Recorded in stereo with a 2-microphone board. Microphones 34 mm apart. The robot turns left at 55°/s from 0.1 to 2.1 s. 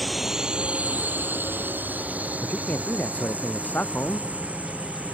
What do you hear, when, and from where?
0.0 s a drone: centre (ahead or behind); by 5.1 s 50° right (ahead or behind)
2.4 s a man speaking: 60° left (ahead or behind)